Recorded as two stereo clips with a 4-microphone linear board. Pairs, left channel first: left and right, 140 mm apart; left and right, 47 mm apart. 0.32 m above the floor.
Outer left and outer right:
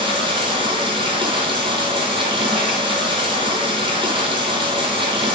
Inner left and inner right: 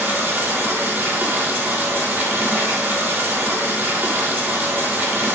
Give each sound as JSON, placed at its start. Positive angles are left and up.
{"t": 0.0, "sound": "running water", "side_deg": -40, "distance_m": 2.0}